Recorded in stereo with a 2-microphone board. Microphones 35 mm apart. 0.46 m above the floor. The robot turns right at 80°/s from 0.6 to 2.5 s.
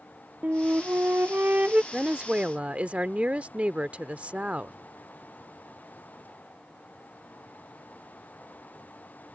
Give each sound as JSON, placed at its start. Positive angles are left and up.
{"t": 0.4, "sound": "a flute", "azimuth_deg": -130}
{"t": 1.9, "sound": "a woman speaking", "azimuth_deg": -140}